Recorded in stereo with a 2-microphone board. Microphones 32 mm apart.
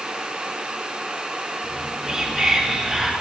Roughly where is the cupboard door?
No cupboard door in this recording.